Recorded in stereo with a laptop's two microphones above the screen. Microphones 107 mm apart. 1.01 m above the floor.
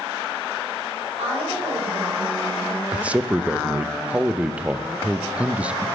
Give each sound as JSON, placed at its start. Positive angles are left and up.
{"t": 1.2, "sound": "a woman speaking", "side_deg": -85, "distance_m": 4.5}
{"t": 2.9, "sound": "a man speaking", "side_deg": -10, "distance_m": 0.5}